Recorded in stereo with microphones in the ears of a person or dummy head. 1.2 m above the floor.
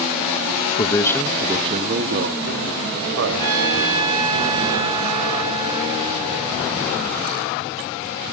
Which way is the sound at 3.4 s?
25° right (ahead or behind).